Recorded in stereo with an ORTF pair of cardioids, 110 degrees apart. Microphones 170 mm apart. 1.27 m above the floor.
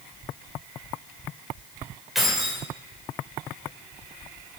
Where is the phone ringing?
No phone ringing in this recording.